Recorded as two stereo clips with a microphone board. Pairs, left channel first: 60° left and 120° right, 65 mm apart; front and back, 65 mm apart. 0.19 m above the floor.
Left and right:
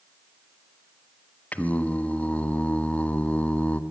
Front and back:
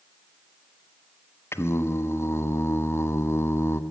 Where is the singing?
5° left, 0.8 m.